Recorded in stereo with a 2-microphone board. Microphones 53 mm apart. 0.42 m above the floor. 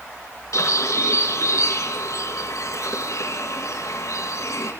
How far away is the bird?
About 4.5 m.